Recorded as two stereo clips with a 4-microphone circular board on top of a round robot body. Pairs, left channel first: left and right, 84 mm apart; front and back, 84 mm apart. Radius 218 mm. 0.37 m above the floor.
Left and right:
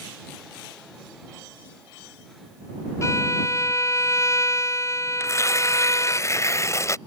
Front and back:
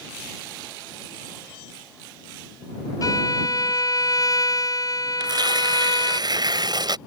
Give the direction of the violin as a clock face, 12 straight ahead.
11 o'clock.